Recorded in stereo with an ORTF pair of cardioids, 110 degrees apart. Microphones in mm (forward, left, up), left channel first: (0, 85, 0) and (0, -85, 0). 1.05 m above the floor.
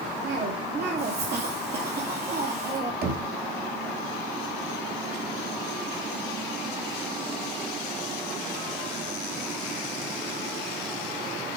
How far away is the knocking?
About 2 m.